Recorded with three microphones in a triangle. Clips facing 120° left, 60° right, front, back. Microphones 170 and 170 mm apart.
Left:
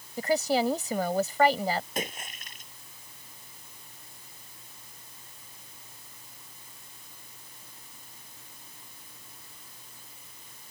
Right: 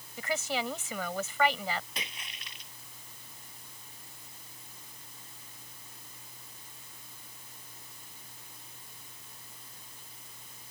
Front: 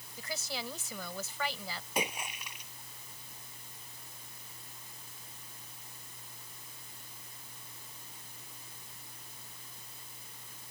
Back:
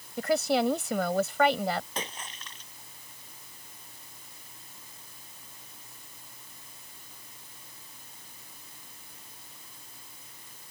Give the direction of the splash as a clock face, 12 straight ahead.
9 o'clock.